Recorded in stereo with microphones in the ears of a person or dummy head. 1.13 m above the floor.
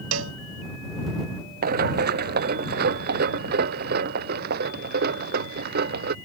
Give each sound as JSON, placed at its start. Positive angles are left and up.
{"t": 0.1, "sound": "a cowbell", "side_deg": -85}
{"t": 1.6, "sound": "running footsteps", "side_deg": -50}